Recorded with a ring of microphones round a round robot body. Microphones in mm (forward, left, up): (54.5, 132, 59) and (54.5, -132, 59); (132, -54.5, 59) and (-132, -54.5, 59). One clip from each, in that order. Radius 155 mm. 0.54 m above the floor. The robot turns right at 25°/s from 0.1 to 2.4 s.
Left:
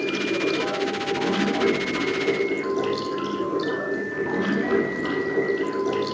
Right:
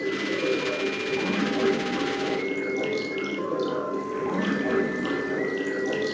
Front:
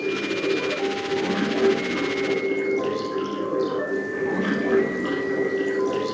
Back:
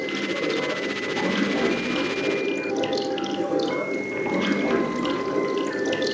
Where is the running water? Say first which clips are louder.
Left 2 dB, front 1 dB; 135° left, 3.5 m; by 6.2 s 165° right, 3.5 m.